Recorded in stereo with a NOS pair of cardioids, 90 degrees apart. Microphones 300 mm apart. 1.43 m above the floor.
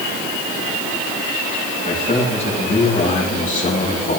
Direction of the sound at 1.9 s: 20° left.